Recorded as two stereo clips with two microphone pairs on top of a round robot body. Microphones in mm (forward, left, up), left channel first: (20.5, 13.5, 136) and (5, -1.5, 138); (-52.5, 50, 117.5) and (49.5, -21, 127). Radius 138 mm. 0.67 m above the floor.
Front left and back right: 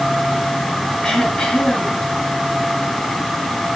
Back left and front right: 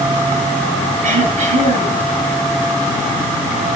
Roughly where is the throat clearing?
Ahead.